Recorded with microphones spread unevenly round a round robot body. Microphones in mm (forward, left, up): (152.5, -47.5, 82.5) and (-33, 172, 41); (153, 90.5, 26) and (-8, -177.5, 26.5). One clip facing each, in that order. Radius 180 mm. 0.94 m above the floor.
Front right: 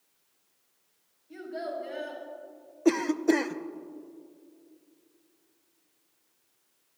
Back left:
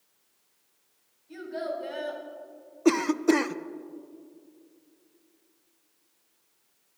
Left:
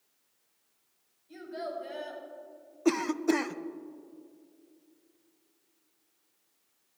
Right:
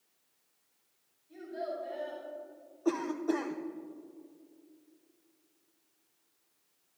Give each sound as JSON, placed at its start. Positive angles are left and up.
{"t": 1.3, "sound": "a child speaking", "azimuth_deg": 95, "distance_m": 5.5}
{"t": 2.9, "sound": "a cough", "azimuth_deg": 70, "distance_m": 0.6}